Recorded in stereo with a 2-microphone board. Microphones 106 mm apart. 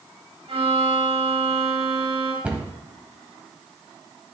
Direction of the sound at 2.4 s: 15° right (ahead or behind).